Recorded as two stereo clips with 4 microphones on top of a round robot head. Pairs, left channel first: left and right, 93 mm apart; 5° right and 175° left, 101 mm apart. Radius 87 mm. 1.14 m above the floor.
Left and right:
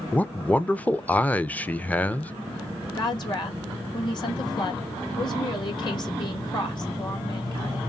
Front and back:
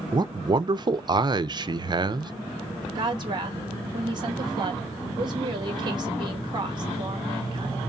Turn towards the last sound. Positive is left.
turn(degrees=130)